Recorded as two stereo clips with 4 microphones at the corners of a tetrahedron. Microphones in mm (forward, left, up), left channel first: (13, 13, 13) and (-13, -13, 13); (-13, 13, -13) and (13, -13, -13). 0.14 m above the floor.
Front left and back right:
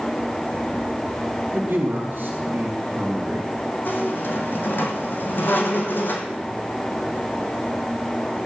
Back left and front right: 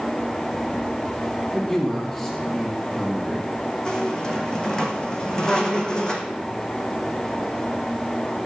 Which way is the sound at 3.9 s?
70° left.